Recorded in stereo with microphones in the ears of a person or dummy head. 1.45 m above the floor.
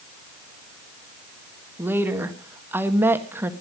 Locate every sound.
1.8 s a woman speaking: 10° right (ahead or behind), 1.7 m